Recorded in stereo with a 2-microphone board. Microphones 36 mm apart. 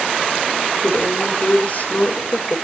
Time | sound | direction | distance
0.8 | a woman speaking | 55° left (ahead or behind) | 2 m